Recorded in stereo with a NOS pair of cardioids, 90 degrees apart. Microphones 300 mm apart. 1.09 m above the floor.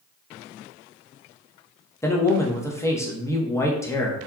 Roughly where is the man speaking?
Ahead.